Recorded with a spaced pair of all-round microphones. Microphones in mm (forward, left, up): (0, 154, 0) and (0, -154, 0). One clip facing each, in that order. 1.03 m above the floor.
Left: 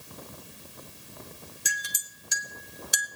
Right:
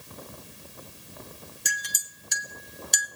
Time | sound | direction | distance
1.6 | a clink | 5° left (ahead or behind) | 1.0 m